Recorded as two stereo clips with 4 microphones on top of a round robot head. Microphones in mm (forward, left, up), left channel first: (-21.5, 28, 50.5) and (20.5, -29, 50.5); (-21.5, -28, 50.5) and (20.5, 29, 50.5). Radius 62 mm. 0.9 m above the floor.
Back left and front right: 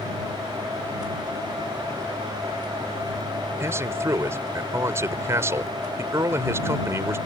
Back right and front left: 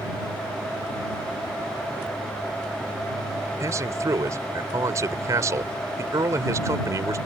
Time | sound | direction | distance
3.6 | a man speaking | 5° left | ?